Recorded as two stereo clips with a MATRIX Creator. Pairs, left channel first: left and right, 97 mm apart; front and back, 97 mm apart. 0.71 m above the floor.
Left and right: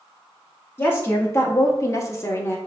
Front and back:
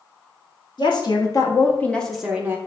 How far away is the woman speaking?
About 1.2 m.